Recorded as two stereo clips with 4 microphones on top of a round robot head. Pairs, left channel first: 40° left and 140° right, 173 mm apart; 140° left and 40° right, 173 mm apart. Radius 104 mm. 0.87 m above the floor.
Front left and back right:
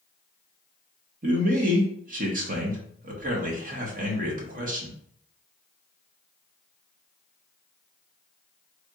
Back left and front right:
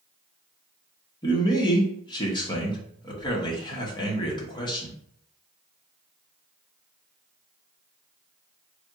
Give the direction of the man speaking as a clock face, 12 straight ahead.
5 o'clock.